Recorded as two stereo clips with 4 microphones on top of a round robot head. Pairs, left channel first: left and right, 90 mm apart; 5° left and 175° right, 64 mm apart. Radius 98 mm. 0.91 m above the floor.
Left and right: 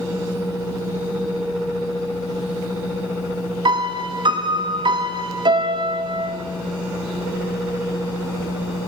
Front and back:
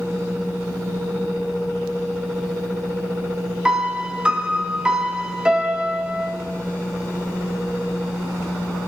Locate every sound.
3.6 s a piano: 100° right, 1.3 m